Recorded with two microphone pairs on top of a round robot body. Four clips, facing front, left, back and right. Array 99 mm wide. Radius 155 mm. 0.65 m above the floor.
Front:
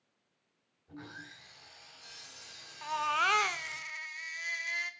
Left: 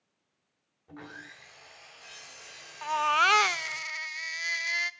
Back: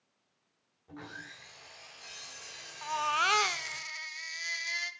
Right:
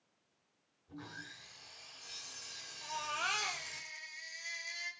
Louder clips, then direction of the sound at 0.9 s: Left 4 dB, back 2 dB; 115° left.